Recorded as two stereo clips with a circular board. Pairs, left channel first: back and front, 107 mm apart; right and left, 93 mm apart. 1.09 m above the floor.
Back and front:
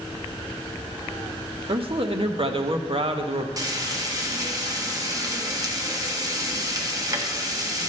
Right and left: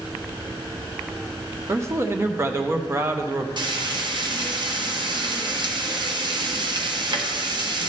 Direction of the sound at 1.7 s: 30° left.